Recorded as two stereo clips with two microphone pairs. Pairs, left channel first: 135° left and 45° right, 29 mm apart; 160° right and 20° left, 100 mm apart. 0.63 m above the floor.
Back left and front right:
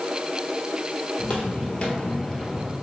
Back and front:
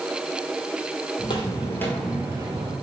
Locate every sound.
1.2 s footsteps: 170° left, 1.4 m; by 2.8 s 35° left, 1.1 m